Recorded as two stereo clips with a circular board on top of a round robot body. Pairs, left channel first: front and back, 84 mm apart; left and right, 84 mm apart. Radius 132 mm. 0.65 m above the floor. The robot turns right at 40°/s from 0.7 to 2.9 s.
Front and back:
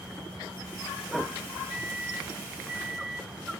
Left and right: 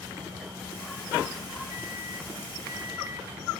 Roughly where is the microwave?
Right.